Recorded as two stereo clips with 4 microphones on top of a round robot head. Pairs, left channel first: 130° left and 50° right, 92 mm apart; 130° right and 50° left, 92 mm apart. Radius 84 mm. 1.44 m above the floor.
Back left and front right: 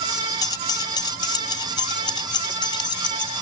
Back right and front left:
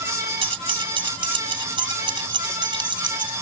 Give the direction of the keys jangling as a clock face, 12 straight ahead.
9 o'clock.